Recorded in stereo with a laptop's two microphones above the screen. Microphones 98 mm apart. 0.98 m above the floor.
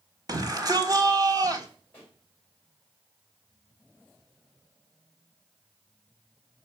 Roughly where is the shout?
Right.